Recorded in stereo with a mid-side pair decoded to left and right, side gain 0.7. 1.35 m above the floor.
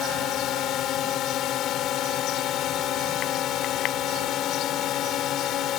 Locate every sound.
0.0 s a drone: 50° left